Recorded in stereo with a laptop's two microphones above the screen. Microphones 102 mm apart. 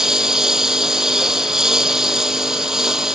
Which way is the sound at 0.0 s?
5° right (ahead or behind).